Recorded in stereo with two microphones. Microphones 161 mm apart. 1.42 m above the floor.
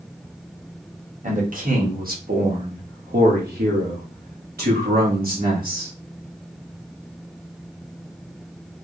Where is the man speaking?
55° right (ahead or behind), 2.0 m; by 5.9 s 65° right (ahead or behind), 2.5 m.